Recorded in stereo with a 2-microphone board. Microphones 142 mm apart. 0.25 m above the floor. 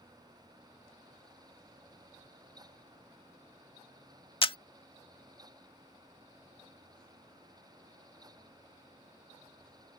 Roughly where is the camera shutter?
Left.